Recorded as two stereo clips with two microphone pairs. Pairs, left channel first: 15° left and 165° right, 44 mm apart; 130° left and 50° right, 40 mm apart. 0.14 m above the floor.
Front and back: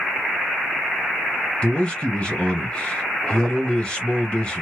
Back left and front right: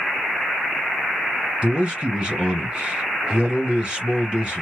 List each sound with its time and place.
1.6 s a man speaking: 15° right, 1.6 m